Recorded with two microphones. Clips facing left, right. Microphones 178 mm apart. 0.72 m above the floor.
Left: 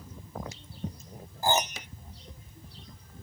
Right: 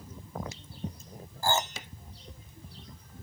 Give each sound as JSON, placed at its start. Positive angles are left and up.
{"t": 1.4, "sound": "a piano", "side_deg": 20}